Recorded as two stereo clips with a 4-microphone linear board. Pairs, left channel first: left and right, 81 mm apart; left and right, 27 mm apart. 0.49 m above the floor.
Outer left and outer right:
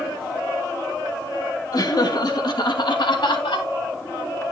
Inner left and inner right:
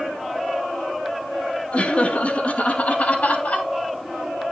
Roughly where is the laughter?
Left.